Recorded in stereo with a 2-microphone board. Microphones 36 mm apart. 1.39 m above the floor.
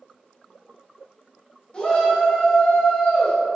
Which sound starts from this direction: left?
A shout, at 1.7 s.